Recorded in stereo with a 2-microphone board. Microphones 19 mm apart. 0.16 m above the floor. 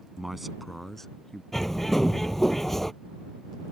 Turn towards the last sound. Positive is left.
turn(degrees=15)  # may be behind; listen again after turning